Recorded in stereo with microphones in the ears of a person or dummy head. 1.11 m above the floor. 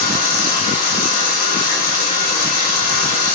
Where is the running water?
45° left (ahead or behind), 1.4 m.